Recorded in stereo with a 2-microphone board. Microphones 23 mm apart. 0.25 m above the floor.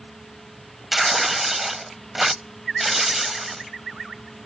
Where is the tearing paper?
10° right (ahead or behind).